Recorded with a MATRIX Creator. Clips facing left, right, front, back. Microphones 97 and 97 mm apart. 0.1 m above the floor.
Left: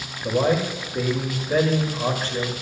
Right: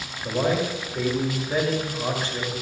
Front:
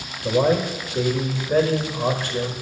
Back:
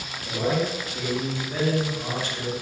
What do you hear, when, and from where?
0.2 s a man speaking: 45° left, 7.5 m